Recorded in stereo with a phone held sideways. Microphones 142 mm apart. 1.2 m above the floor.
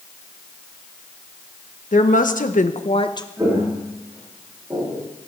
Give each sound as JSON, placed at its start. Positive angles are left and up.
{"t": 1.9, "sound": "a woman speaking", "side_deg": 70, "distance_m": 1.6}
{"t": 3.4, "sound": "footsteps", "side_deg": -15, "distance_m": 8.0}